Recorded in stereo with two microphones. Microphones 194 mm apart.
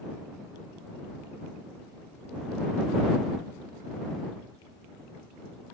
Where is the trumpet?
I don't hear a trumpet.